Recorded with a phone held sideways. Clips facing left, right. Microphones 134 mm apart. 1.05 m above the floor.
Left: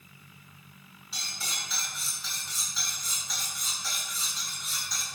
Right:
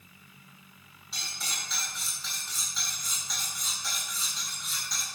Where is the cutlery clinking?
Centre (ahead or behind), 6 m.